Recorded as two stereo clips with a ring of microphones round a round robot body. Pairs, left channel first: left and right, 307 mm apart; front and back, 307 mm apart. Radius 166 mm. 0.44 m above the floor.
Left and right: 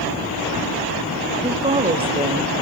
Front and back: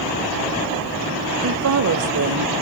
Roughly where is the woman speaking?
Behind.